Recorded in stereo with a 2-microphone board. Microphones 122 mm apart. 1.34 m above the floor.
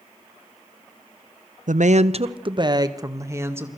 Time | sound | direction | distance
1.7 | a woman speaking | 80° right | 0.8 m